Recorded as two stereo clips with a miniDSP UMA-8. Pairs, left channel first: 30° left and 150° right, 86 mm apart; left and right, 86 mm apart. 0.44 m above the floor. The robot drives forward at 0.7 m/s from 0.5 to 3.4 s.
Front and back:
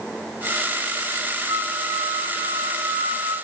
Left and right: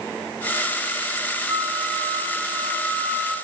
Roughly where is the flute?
Behind right.